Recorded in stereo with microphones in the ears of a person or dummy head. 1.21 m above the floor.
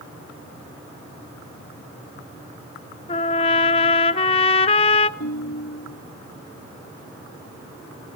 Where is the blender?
No blender in this recording.